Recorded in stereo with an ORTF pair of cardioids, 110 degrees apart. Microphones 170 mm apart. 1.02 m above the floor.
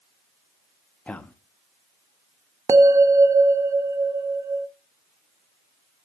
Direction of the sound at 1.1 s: 10° left.